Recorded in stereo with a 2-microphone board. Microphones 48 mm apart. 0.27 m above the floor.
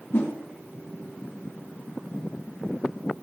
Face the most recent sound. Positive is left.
turn(degrees=50)  # may be behind; listen again after turning